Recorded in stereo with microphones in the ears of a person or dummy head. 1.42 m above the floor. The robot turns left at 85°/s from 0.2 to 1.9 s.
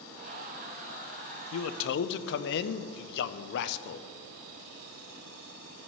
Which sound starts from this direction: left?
A man speaking, at 1.5 s.